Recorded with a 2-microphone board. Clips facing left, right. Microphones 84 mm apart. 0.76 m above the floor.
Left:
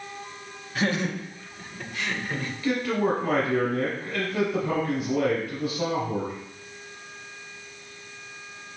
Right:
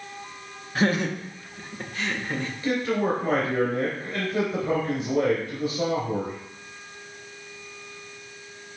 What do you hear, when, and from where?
0.8 s laughter: 40° right (ahead or behind), 1.2 m; by 2.5 s 25° right (ahead or behind), 1.3 m
2.6 s a man speaking: 30° right (ahead or behind), 3 m